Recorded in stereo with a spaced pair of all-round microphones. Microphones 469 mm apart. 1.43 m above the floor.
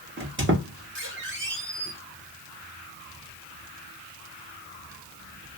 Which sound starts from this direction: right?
A squeak, at 0.2 s.